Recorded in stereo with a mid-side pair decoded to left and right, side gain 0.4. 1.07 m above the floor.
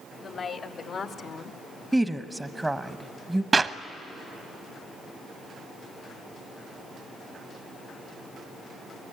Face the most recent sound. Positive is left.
turn(degrees=-30)